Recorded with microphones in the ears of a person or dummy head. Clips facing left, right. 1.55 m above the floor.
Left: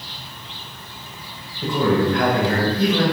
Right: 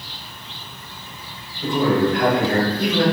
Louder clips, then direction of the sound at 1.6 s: Right 1 dB; 70° left (ahead or behind).